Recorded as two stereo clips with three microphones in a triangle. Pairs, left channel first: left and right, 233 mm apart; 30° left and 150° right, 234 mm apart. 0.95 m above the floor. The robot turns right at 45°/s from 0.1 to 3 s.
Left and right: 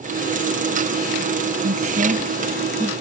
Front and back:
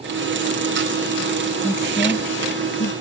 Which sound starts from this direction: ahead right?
A woman speaking, at 1.6 s.